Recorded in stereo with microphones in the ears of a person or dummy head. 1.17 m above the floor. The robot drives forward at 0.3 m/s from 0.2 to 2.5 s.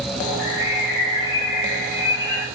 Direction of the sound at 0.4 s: 75° left (ahead or behind).